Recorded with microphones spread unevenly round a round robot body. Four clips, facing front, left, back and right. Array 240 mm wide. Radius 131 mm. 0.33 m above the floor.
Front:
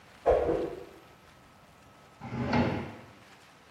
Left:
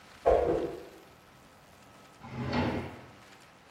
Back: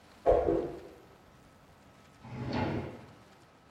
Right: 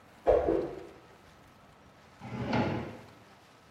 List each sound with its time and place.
0.2 s a whoosh: 80° left, 1.7 m
2.2 s a drawer: 15° right, 0.7 m